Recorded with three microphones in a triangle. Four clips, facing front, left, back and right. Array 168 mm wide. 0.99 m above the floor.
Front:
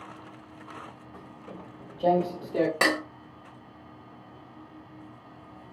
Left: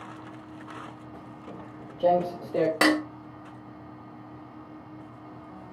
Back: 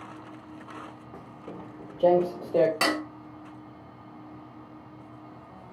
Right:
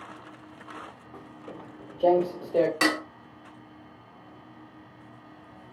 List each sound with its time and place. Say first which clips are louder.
1.1 s footsteps: left 1 dB, back 3 dB; 175° left, 1.3 m; by 2.7 s straight behind, 2 m
2.8 s dishes clattering: left 4 dB, front 1 dB; 65° left, 0.9 m